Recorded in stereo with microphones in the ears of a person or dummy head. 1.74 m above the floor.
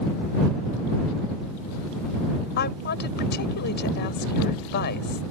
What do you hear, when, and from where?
2.6 s a woman speaking: 55° left (ahead or behind)